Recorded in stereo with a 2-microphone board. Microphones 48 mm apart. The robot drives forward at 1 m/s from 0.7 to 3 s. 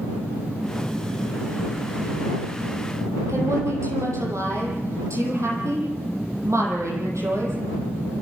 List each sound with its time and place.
3.3 s a woman speaking: 85° right, 9.5 m